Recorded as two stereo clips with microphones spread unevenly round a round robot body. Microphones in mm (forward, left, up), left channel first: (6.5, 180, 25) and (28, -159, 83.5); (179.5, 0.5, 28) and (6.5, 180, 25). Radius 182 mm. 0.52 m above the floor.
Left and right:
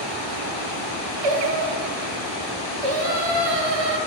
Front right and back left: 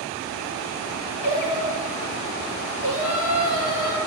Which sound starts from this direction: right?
Singing, at 1.2 s.